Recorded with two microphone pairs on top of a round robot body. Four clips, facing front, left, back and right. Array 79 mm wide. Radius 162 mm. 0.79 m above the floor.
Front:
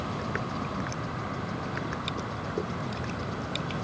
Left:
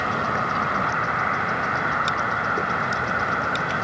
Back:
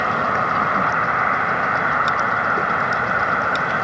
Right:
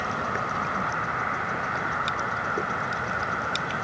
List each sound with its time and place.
0.0 s an insect: 170° left